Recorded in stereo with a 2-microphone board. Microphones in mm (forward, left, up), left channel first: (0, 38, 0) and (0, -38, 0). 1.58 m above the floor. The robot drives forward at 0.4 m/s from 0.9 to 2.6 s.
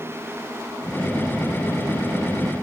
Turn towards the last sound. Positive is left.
No sound to turn to.